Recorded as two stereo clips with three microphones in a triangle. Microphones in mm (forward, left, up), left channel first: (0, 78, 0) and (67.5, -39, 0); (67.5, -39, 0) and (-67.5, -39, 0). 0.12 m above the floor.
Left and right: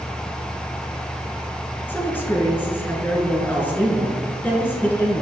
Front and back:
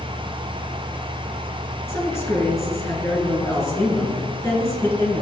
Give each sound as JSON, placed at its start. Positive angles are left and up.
{"t": 1.9, "sound": "a man speaking", "azimuth_deg": 55, "distance_m": 1.6}